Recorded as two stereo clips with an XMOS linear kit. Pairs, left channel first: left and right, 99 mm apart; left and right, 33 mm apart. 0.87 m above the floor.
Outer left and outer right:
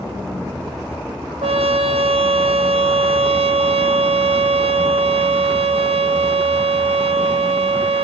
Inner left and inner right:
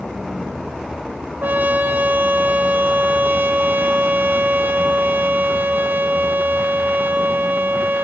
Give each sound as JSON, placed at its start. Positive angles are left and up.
{"t": 1.4, "sound": "a trumpet", "side_deg": -80, "distance_m": 0.8}